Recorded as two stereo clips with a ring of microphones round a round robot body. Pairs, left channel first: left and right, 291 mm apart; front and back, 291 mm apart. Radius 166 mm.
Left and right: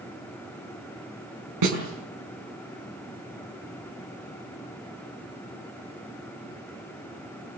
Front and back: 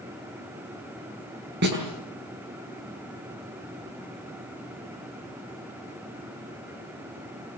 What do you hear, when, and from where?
1.6 s a snare drum: 120° right, 8 m